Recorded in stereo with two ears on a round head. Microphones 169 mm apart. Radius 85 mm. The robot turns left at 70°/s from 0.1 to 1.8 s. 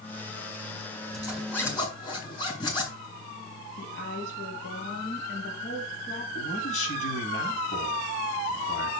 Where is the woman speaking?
65° left (ahead or behind), 4.5 m.